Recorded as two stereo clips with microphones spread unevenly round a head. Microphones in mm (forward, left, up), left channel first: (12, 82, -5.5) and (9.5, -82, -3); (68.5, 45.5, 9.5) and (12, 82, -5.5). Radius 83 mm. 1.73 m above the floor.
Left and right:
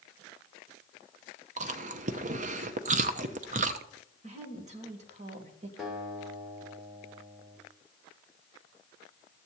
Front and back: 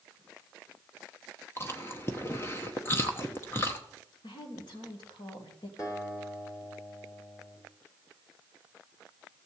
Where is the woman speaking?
40° right, 2.5 m.